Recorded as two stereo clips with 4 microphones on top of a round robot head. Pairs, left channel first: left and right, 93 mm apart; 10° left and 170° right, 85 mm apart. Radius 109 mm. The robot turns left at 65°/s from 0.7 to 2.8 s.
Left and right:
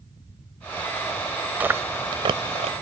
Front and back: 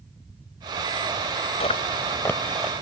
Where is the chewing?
20° right; by 2.8 s 95° right.